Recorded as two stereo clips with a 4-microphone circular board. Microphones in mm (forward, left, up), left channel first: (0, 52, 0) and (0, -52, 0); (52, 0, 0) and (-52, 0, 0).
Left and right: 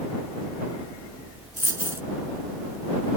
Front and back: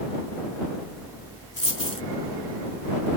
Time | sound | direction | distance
1.6 | a dropped coin | 25° right | ?